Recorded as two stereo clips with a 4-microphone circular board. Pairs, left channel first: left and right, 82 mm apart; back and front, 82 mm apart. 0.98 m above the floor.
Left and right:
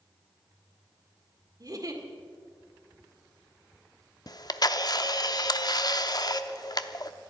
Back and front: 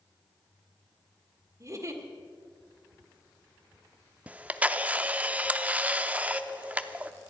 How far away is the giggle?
About 1.7 m.